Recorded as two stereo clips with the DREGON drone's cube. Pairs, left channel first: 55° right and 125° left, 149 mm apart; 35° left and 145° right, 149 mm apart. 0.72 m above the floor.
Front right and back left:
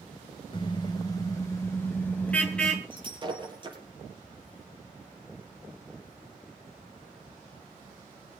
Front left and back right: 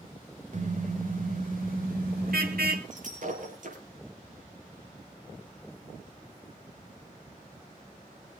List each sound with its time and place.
0.5 s a car horn: 110° right, 2 m; by 2.8 s 140° right, 3 m
2.9 s breaking glass: straight behind, 5.5 m